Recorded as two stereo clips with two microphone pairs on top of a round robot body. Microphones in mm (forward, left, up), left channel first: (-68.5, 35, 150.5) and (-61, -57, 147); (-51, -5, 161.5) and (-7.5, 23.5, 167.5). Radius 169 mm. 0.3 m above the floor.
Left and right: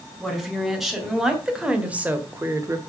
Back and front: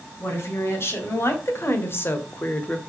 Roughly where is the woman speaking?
Behind.